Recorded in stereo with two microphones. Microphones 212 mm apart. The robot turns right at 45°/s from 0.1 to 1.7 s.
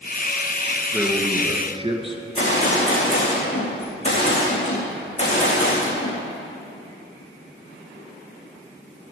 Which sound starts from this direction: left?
A gunshot, at 2.4 s.